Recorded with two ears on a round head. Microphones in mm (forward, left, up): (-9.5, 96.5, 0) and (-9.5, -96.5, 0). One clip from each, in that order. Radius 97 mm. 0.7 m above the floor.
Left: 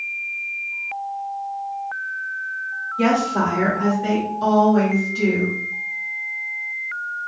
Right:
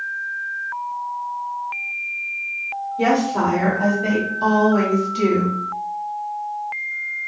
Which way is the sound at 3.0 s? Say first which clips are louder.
Right 1 dB; 20° left (ahead or behind).